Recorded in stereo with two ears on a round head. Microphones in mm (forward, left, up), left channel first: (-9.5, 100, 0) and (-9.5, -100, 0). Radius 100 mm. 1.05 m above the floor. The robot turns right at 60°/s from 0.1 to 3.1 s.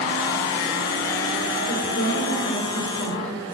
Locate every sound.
1.6 s a woman speaking: 75° left, 3.5 m; by 3.5 s 165° left, 3.5 m